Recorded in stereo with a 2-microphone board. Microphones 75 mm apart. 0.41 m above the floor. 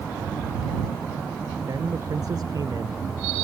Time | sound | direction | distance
1.7 | a man speaking | 55° right (ahead or behind) | ?